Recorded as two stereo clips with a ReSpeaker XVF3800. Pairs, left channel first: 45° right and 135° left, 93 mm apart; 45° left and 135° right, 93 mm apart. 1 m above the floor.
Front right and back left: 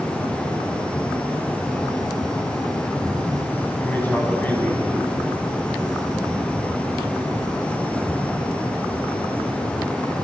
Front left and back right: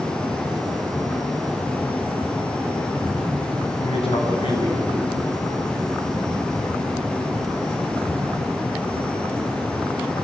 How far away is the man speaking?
About 7 m.